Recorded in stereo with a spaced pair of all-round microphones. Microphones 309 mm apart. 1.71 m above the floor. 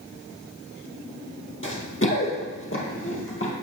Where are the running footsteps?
40° left (ahead or behind), 2 m.